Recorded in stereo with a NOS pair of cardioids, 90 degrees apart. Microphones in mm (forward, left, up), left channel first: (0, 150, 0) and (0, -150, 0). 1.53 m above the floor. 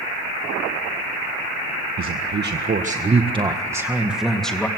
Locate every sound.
2.0 s a man speaking: 45° right, 1.6 m; by 4.7 s 5° left, 2 m